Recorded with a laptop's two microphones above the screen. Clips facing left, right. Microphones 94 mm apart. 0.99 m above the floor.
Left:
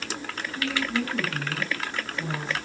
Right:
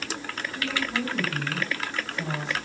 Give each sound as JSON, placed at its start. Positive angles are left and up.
{"t": 0.5, "sound": "a woman speaking", "side_deg": -65, "distance_m": 7.5}